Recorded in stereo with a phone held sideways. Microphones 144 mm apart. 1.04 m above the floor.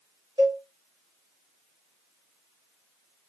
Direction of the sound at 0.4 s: 30° right (ahead or behind).